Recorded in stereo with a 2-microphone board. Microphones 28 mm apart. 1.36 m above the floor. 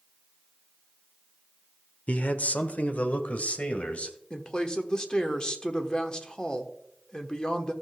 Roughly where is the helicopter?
No helicopter in this recording.